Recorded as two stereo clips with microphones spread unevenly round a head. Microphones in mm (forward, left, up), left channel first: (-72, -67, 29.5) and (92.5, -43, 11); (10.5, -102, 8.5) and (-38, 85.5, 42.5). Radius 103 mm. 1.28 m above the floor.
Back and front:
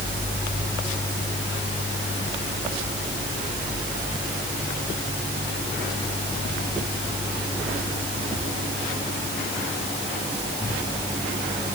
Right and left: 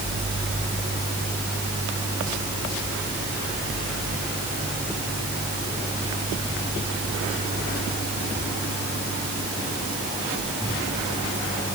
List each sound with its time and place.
Only background noise.